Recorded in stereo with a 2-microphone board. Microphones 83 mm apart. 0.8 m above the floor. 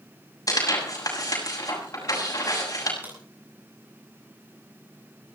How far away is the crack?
About 9.5 m.